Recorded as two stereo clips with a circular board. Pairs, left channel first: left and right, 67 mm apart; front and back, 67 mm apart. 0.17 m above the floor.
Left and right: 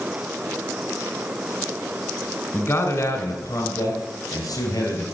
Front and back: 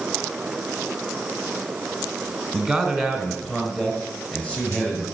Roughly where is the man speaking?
Left.